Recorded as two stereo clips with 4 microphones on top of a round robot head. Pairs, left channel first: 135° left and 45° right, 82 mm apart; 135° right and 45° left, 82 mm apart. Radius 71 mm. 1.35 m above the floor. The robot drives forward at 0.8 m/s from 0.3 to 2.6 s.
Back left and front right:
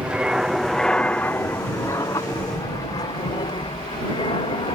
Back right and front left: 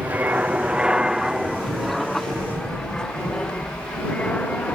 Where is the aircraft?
10° left; by 4.8 s 150° left.